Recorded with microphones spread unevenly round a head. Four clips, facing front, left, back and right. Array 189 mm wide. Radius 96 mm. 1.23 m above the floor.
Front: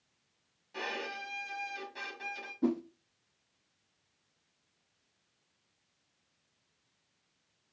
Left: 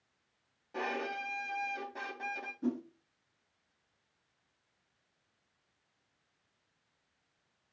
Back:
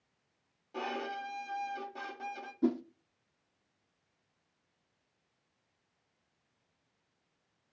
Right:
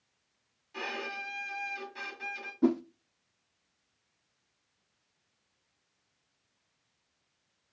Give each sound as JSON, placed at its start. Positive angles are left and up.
{"t": 0.7, "sound": "a violin", "azimuth_deg": 130, "distance_m": 1.5}
{"t": 2.6, "sound": "a whoosh", "azimuth_deg": -95, "distance_m": 0.7}